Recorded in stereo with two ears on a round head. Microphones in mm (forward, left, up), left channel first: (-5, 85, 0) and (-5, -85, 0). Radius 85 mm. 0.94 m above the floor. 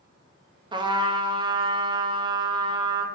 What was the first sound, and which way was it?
A trumpet, 25° right (ahead or behind).